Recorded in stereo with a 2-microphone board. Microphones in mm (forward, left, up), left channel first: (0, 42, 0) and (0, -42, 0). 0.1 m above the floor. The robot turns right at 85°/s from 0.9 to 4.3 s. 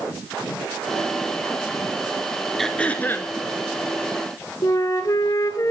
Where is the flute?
45° left (ahead or behind), 0.8 m.